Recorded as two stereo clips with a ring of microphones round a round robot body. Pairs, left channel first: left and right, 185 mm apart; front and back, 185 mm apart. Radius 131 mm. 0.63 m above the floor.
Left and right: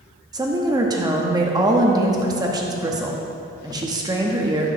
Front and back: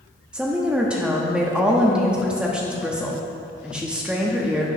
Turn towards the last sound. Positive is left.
turn(degrees=-105)